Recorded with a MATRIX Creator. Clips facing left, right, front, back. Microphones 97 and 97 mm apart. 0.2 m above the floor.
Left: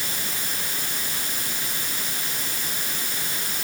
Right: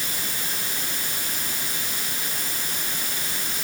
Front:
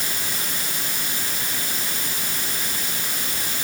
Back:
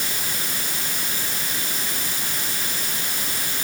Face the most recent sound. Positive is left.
No sound to turn to.